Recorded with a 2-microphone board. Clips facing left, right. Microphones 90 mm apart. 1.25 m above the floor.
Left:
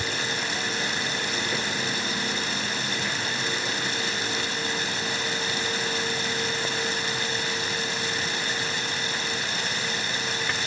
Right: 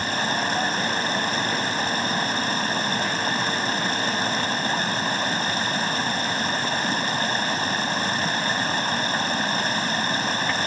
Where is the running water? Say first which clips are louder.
Right 5 dB; 45° right (ahead or behind).